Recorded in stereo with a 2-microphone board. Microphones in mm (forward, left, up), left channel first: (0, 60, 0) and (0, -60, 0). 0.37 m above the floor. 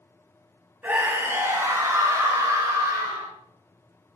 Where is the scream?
15° right (ahead or behind), 2.5 m; by 3.3 s 30° right (ahead or behind), 4.5 m.